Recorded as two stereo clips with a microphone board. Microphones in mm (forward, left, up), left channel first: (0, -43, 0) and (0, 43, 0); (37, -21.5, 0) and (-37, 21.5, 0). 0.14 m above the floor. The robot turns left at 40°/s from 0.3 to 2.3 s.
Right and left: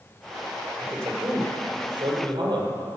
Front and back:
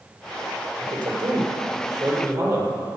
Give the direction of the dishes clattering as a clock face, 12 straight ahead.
I don't hear dishes clattering.